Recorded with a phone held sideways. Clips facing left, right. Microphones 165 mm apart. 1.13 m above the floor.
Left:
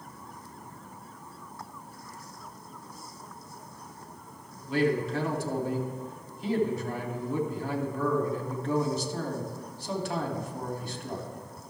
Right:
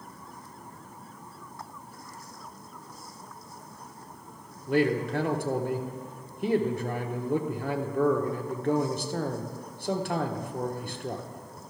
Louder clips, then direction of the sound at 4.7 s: Right 1 dB; 60° right (ahead or behind).